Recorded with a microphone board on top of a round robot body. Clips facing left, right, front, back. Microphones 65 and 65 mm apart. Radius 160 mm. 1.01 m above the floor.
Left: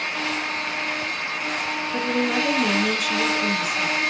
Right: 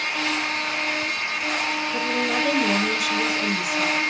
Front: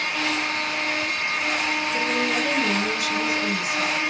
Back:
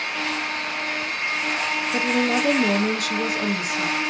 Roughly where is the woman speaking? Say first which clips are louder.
Left 3 dB, back 5 dB; behind.